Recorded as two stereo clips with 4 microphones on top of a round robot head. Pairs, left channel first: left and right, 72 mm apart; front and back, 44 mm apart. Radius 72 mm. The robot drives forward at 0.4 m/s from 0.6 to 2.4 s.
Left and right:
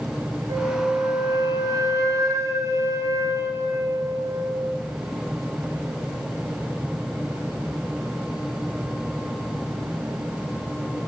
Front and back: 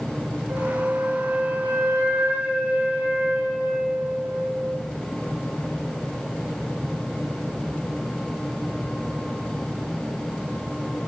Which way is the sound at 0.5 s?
125° right.